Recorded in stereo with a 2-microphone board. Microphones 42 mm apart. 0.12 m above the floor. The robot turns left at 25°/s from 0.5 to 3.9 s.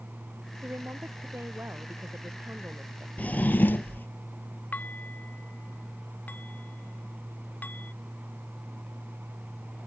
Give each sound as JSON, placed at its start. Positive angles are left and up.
{"t": 0.6, "sound": "a woman speaking", "azimuth_deg": -70}
{"t": 3.2, "sound": "a drawer", "side_deg": 40}
{"t": 4.7, "sound": "dishes clattering", "side_deg": 40}